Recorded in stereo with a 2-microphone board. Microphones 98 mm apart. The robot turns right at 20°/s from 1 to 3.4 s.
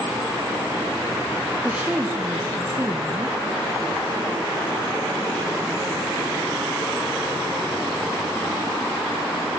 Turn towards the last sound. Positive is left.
turn(degrees=-120)